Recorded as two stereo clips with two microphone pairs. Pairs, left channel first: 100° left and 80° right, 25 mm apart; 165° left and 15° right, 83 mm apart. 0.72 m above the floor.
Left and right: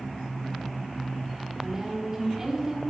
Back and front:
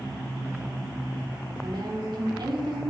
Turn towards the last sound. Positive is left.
turn(degrees=-10)